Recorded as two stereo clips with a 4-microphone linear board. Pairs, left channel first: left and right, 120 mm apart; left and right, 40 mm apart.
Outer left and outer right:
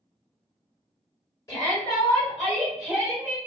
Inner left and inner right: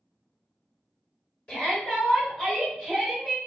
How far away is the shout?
About 1.5 m.